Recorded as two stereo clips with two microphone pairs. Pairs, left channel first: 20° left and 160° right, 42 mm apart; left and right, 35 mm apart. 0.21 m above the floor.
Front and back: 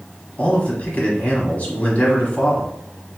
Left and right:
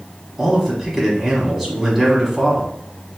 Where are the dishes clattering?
No dishes clattering in this recording.